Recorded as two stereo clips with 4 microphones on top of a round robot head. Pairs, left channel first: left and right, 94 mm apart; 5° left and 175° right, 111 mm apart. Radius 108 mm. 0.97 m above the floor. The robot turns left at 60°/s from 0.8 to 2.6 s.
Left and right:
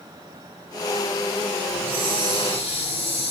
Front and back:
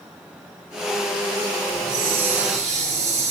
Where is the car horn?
I don't hear a car horn.